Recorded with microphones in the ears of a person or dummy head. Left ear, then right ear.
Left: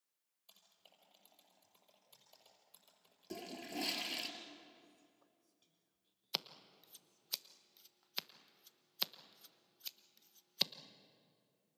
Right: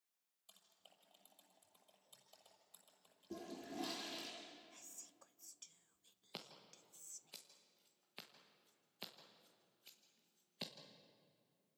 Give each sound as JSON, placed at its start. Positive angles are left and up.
{"t": 0.5, "sound": "typing on a keyboard", "side_deg": 5, "distance_m": 6.5}
{"t": 3.3, "sound": "a toilet flushing", "side_deg": 60, "distance_m": 4.5}
{"t": 4.7, "sound": "whispering", "side_deg": -65, "distance_m": 0.5}
{"t": 6.3, "sound": "scissors", "side_deg": 45, "distance_m": 1.2}